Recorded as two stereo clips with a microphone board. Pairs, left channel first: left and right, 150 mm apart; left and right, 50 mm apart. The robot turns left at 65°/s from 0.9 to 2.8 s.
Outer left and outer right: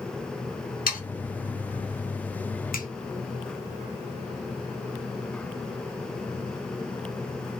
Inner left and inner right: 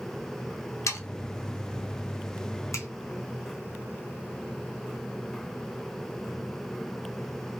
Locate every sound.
0.9 s sawing: 75° left (ahead or behind), 1.0 m; by 1.0 s 70° left (ahead or behind), 1.0 m
2.7 s a finger snap: 75° left (ahead or behind), 0.8 m